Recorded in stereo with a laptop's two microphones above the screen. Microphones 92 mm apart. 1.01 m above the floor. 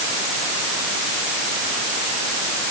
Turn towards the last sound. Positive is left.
No sound to turn to.